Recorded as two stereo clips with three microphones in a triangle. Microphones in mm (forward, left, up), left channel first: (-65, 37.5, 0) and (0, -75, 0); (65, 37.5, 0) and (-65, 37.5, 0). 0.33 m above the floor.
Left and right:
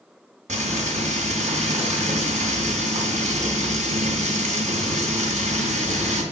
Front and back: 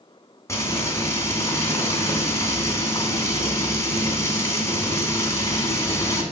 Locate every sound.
0.5 s frying: 65° right, 2.5 m